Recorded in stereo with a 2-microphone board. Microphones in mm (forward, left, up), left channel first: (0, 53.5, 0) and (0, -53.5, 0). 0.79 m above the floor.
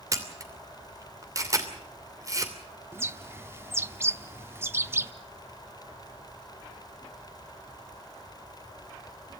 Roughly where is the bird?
Right.